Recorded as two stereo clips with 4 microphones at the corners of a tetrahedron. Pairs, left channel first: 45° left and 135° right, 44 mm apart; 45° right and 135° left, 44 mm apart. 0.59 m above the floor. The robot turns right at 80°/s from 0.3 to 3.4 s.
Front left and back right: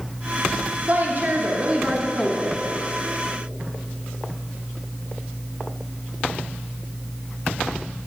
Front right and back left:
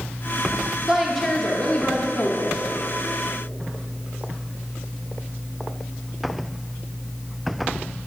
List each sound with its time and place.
0.9 s a woman speaking: 155° right, 0.7 m; by 2.6 s 20° right, 0.7 m